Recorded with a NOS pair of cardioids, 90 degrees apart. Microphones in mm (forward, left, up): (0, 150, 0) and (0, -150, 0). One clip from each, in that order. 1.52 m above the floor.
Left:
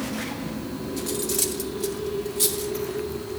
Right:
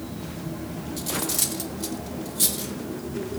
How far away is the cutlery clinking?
About 2.5 m.